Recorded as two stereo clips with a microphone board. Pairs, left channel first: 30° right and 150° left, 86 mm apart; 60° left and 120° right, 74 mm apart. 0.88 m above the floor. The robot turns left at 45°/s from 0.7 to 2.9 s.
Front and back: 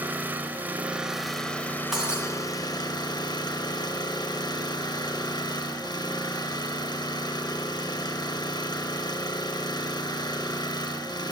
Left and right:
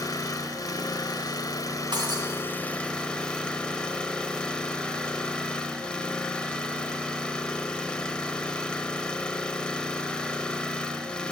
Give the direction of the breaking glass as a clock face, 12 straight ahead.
4 o'clock.